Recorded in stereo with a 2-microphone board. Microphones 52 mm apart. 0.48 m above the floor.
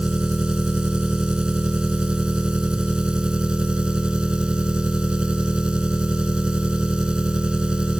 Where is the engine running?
20° right (ahead or behind).